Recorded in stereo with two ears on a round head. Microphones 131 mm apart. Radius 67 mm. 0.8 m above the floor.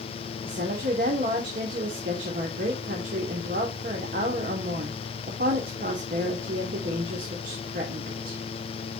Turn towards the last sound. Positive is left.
turn(degrees=-70)  # may be behind; listen again after turning